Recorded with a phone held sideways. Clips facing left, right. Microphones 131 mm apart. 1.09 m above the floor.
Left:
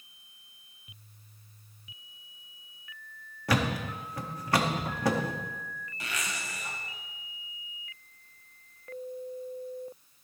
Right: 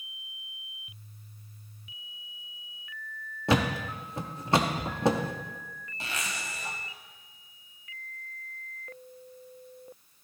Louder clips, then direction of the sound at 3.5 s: Right 2 dB; 25° right (ahead or behind).